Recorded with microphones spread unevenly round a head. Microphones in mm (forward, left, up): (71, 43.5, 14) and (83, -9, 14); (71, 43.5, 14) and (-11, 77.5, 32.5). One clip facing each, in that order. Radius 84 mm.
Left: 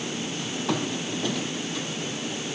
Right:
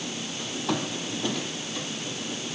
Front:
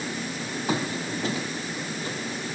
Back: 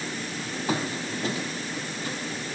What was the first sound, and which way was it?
Only background noise.